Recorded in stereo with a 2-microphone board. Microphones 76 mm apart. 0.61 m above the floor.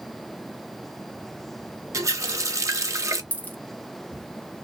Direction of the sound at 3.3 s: 25° left (ahead or behind).